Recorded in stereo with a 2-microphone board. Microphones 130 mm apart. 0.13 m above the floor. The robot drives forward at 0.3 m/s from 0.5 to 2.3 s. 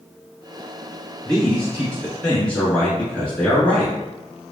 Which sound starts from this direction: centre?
A man speaking, at 1.2 s.